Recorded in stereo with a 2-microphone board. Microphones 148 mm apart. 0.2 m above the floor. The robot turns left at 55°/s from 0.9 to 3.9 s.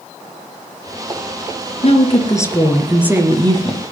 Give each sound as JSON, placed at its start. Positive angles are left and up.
{"t": 1.8, "sound": "a woman speaking", "azimuth_deg": 55, "distance_m": 2.5}